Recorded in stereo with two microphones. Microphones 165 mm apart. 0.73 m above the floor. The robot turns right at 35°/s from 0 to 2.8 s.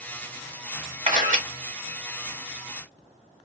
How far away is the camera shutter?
About 1.6 m.